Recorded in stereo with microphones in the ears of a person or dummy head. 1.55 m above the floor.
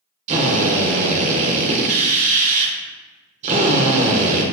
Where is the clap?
No clap in this recording.